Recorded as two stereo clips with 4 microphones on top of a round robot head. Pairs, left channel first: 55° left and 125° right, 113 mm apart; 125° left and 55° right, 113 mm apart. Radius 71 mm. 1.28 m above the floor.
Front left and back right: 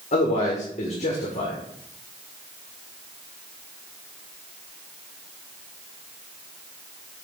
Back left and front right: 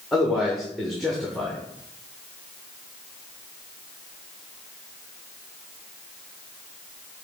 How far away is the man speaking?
About 1.6 m.